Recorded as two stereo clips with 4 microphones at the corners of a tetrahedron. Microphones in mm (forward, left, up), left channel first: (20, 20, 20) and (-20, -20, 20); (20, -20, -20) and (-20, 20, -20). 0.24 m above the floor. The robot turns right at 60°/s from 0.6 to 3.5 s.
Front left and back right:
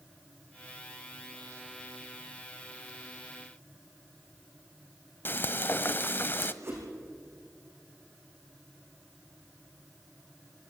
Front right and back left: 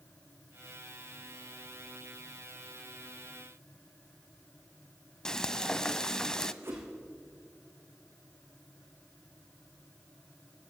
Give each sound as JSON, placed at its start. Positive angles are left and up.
{"t": 5.2, "sound": "frying", "azimuth_deg": 25, "distance_m": 0.7}
{"t": 6.6, "sound": "a whoosh", "azimuth_deg": -175, "distance_m": 6.0}